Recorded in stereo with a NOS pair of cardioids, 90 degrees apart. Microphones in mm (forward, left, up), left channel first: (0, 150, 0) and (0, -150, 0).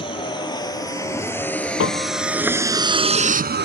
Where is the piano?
45° left.